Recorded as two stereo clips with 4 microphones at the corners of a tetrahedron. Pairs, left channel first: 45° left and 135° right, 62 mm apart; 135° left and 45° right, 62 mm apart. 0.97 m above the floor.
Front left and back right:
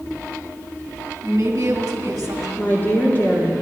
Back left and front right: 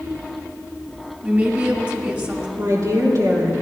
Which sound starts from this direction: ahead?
A woman speaking, at 2.6 s.